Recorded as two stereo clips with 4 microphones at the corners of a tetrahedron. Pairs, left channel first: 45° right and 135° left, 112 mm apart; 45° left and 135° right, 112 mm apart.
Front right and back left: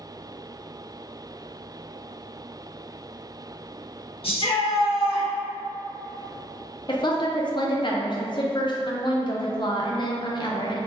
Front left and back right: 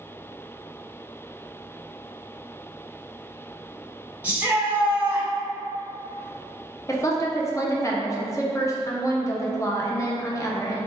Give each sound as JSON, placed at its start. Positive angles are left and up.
{"t": 4.2, "sound": "a shout", "azimuth_deg": -60, "distance_m": 1.0}
{"t": 6.9, "sound": "a woman speaking", "azimuth_deg": -10, "distance_m": 0.5}